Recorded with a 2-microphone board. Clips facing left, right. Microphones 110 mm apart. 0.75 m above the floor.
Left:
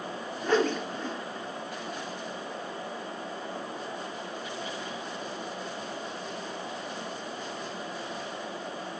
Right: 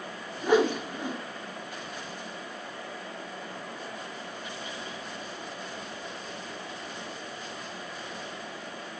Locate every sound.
0.4 s a whoosh: 10° right (ahead or behind), 1.2 m